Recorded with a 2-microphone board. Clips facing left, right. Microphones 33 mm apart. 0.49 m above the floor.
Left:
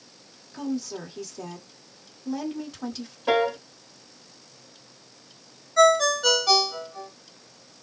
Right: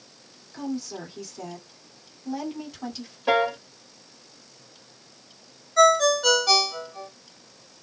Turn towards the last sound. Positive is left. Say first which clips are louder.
# right 1 dB
turn(degrees=-5)  # may be behind; listen again after turning